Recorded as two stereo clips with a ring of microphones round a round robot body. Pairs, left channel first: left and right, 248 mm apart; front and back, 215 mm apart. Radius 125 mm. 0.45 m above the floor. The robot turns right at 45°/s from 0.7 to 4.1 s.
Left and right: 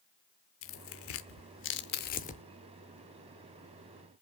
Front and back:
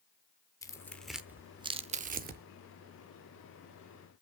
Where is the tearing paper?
75° left, 0.7 m; by 2.4 s 150° left, 0.7 m.